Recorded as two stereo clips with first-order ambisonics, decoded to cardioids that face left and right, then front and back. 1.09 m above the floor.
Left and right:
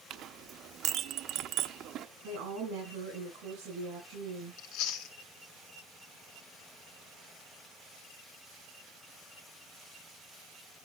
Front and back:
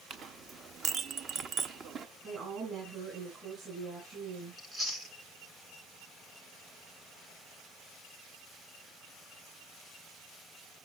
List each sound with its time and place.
0.1 s a clink: 125° right, 0.6 m
2.2 s a woman speaking: 115° right, 6 m
4.6 s chewing: 105° left, 1.7 m